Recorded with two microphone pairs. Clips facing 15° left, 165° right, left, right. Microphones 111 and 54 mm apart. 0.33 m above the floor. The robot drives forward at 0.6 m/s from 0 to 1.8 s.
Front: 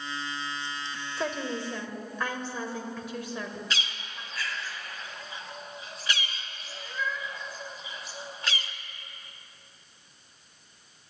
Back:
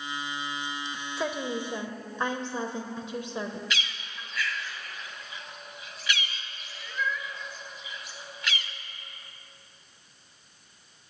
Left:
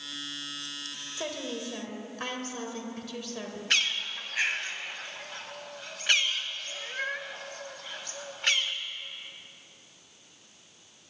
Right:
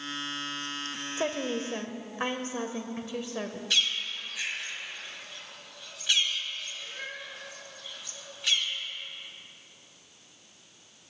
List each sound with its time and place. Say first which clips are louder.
1.2 s a woman speaking: back 1 dB, right 5 dB; 80° right, 0.9 m; by 3.6 s 125° right, 1.0 m
3.7 s a bird: even, left 2 dB; 65° left, 0.8 m